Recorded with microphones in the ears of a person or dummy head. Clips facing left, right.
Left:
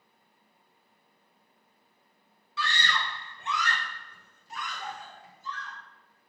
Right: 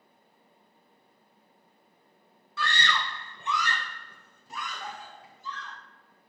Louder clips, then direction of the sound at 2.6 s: Right 2 dB; 40° right (ahead or behind).